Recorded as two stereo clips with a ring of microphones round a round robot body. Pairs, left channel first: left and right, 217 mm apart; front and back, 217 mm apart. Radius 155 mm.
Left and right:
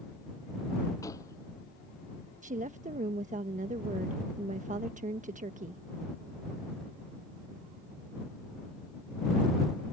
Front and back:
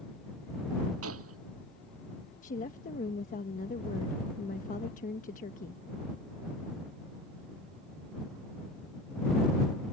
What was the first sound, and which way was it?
A gunshot, 170° left.